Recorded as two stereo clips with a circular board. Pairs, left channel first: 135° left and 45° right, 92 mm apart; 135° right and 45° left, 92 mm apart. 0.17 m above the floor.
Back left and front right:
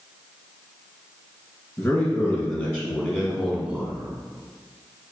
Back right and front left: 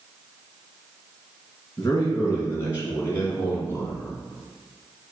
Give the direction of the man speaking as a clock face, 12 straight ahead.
6 o'clock.